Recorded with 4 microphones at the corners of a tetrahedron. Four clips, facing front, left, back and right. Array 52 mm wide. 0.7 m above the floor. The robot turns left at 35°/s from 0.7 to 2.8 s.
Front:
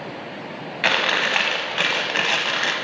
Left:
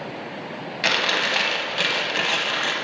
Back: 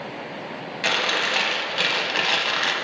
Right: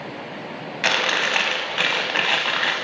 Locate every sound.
0.8 s chewing: 20° right, 0.5 m; by 2.8 s 85° right, 0.5 m